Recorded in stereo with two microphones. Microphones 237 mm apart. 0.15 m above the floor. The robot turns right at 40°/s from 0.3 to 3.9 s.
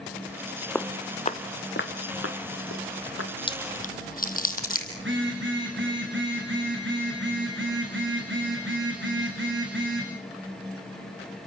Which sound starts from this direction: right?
A phone buzzing, at 5.0 s.